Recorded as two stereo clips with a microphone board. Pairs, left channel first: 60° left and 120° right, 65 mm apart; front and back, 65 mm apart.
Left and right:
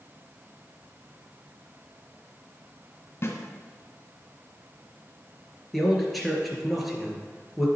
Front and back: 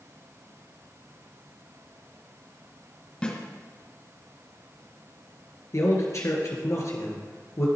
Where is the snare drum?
60° left, 1.9 m.